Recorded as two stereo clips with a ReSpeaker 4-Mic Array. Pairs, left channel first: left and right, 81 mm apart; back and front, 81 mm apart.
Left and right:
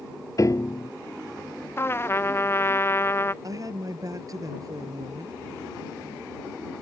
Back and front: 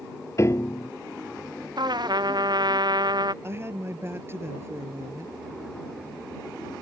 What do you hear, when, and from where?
0.4 s a piano: 135° left
1.8 s a trumpet: 30° left
3.4 s a woman speaking: 55° right